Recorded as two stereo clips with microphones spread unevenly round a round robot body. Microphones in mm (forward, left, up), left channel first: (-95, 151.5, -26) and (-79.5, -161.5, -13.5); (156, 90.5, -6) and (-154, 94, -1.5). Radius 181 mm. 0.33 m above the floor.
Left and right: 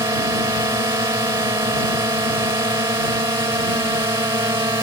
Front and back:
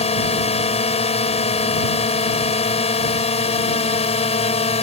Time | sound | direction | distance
0.0 | a drone | 25° right | ?